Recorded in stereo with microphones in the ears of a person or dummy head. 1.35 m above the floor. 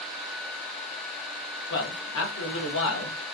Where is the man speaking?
70° left (ahead or behind), 1.3 m.